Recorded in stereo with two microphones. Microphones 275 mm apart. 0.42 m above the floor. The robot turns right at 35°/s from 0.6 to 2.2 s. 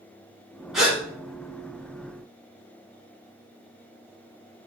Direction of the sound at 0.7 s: Centre (ahead or behind).